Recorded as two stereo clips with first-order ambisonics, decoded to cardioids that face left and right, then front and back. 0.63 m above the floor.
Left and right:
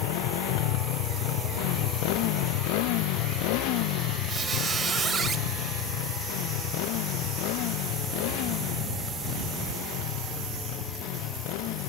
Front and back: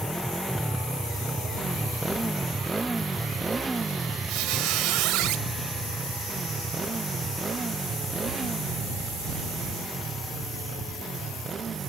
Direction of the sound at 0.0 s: 90° left.